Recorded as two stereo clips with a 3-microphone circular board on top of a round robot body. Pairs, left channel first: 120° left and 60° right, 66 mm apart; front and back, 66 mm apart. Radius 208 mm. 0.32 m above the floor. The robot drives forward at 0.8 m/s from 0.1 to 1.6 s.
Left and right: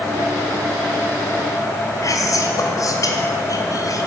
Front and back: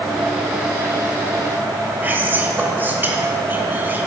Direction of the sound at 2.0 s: 130° left.